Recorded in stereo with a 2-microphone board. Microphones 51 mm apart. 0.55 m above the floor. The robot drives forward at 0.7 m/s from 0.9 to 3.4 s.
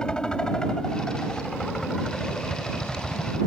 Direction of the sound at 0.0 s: 15° left (ahead or behind).